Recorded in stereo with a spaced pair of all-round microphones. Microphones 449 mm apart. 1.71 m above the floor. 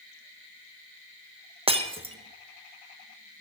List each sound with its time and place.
1.7 s breaking glass: 10° right (ahead or behind), 1.0 m